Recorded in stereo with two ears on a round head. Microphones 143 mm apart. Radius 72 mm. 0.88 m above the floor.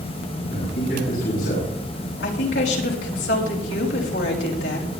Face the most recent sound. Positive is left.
turn(degrees=80)